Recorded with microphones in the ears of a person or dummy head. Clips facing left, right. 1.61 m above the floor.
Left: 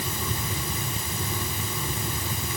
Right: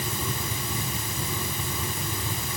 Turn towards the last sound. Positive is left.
No sound to turn to.